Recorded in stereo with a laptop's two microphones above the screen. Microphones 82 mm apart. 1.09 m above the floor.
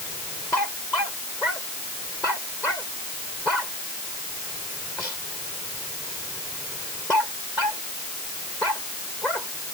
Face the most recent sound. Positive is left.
No sound to turn to.